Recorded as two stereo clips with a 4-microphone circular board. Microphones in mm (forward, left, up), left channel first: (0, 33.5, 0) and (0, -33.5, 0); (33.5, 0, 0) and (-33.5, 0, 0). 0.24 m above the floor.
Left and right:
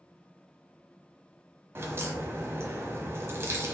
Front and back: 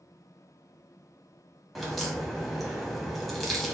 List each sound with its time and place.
1.8 s a crack: 90° right, 1.0 m